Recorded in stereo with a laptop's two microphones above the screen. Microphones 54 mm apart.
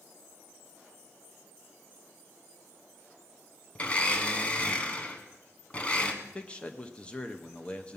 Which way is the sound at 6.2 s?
20° left (ahead or behind).